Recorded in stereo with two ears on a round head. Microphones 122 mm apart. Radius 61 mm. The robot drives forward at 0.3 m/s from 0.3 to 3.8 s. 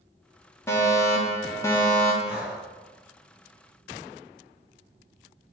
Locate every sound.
0.7 s a fire alarm: 20° left (ahead or behind), 1.7 m
2.2 s breathing: 75° left (ahead or behind), 3.5 m